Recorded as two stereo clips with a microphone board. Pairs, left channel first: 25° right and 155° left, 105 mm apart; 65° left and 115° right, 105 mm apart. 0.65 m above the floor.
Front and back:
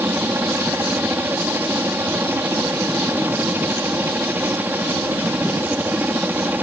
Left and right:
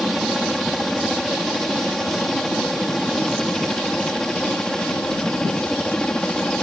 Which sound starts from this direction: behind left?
A helicopter, at 0.0 s.